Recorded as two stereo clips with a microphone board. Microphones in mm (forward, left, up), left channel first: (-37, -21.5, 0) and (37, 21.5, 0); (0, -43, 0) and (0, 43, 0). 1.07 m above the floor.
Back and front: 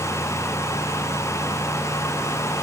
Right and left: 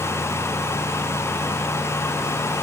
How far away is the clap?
I don't hear a clap.